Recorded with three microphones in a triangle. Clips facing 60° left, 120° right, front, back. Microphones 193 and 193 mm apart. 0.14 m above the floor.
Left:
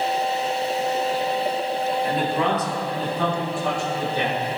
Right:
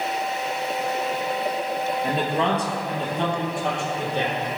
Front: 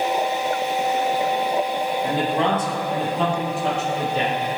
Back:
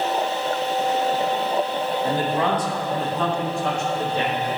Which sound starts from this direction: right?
A man speaking, at 2.0 s.